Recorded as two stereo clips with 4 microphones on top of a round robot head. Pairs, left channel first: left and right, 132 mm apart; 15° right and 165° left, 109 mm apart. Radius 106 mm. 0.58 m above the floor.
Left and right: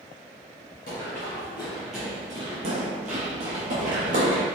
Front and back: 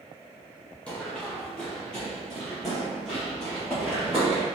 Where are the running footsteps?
65° left, 0.8 m; by 4.4 s 110° right, 1.5 m.